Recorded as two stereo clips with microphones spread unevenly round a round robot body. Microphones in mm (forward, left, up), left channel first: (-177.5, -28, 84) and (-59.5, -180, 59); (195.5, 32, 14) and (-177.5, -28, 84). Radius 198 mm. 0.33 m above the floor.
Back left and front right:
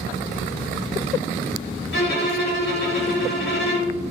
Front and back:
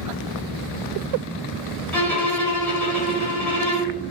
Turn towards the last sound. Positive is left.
turn(degrees=90)